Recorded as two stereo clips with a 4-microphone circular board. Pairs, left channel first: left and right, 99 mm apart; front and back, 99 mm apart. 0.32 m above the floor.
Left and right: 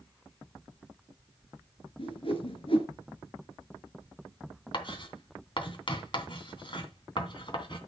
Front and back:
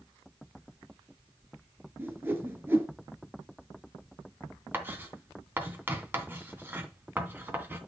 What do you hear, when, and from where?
2.0 s a whoosh: 115° left, 2 m
4.7 s writing: 115° left, 2.5 m